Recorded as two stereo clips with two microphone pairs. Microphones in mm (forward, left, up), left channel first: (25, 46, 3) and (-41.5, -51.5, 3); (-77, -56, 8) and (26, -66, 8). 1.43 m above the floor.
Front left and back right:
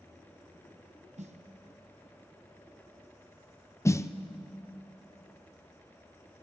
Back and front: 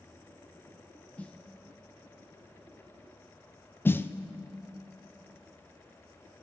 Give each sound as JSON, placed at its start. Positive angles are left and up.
{"t": 1.2, "sound": "a snare drum", "azimuth_deg": -110, "distance_m": 1.1}
{"t": 3.9, "sound": "a snare drum", "azimuth_deg": 115, "distance_m": 0.6}